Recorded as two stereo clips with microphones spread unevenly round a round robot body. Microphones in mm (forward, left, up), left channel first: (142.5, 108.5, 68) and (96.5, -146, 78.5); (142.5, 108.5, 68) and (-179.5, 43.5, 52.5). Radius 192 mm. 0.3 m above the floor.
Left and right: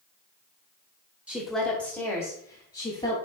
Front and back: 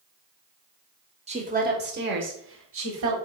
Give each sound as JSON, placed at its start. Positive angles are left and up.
{"t": 1.3, "sound": "a woman speaking", "azimuth_deg": 175, "distance_m": 1.0}